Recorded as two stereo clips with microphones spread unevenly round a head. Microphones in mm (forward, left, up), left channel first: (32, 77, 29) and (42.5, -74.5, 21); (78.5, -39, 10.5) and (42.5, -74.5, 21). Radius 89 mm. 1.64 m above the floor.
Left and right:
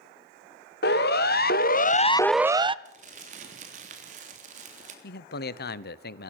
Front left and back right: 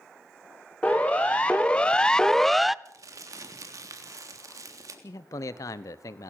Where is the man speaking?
75° left, 1.0 m.